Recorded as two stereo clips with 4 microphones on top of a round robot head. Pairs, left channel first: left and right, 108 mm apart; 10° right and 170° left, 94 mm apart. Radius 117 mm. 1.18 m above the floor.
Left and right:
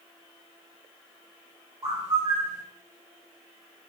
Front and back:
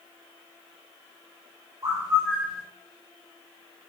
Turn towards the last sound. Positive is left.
turn(degrees=-130)